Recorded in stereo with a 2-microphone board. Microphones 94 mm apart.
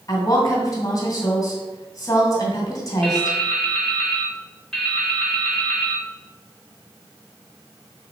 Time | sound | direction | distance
0.1 | a woman speaking | 35° left (ahead or behind) | 2.5 m
3.0 | dripping | 5° left (ahead or behind) | 1.4 m